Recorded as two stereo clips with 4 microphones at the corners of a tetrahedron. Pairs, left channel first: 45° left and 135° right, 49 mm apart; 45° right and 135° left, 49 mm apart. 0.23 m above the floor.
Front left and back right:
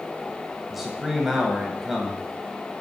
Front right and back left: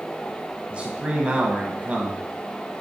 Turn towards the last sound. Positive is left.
turn(degrees=140)